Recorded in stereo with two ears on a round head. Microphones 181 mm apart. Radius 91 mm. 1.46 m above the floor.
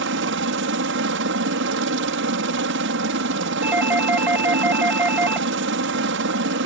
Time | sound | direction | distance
0.0 | a helicopter | 65° right (ahead or behind) | ?
3.6 | a doorbell | 10° right (ahead or behind) | ?